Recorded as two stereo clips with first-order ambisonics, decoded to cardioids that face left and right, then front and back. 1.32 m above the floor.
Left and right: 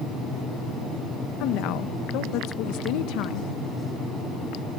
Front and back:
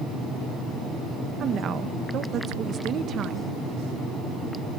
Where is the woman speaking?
120° left, 1.5 m.